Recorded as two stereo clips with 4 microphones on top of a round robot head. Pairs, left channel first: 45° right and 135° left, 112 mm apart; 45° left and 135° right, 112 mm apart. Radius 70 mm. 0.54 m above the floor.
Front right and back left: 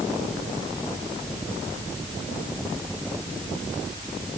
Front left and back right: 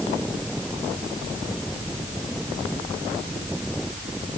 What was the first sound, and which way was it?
Only background noise.